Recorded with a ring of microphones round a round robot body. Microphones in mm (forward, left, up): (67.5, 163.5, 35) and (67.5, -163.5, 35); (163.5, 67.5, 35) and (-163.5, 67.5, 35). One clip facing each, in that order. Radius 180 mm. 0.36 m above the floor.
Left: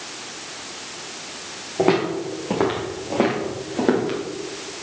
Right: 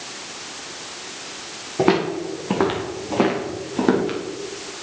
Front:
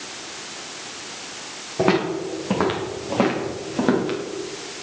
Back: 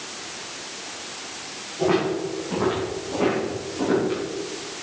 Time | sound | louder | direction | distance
1.8 | footsteps | even, front 1 dB | 25° right | 5 m